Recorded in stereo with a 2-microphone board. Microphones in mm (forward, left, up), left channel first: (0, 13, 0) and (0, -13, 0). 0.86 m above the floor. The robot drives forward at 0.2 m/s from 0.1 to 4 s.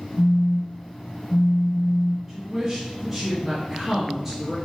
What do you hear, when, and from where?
0.2 s a phone buzzing: 55° left (ahead or behind), 1.2 m; by 2.2 s 70° left (ahead or behind), 1.1 m
2.3 s a woman speaking: 15° right (ahead or behind), 0.6 m; by 4.5 s 10° right (ahead or behind), 0.9 m